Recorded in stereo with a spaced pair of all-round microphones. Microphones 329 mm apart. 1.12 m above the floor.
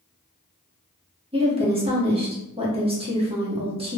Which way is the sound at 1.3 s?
15° right (ahead or behind).